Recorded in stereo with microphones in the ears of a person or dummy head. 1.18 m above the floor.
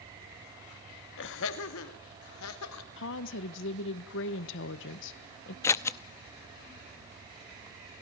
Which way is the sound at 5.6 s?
10° left (ahead or behind).